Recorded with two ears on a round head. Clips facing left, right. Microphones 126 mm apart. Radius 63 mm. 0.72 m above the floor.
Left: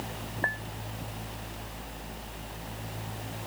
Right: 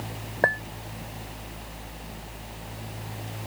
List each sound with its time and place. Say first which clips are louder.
0.4 s a clink: right 11 dB; 75° right (ahead or behind)